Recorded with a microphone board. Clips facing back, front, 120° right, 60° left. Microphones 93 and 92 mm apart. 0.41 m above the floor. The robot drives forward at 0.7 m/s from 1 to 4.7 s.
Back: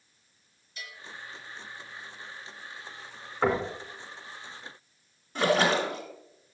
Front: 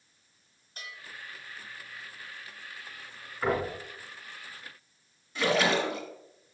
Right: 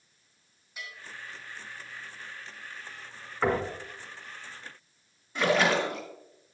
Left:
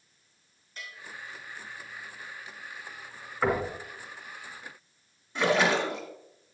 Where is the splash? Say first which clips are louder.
Back 2 dB, even; 155° left, 2 m.